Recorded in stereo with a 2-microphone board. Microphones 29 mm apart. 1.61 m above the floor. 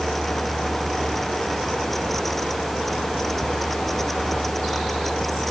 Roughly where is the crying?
I don't hear crying.